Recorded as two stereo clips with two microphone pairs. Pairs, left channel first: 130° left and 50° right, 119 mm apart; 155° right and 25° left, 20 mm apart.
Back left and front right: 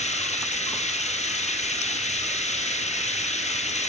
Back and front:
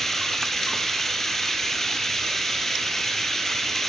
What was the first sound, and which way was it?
Running water, 135° left.